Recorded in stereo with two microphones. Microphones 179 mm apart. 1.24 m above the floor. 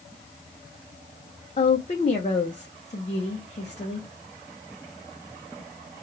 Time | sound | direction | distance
1.6 | a woman speaking | 40° left (ahead or behind) | 0.8 m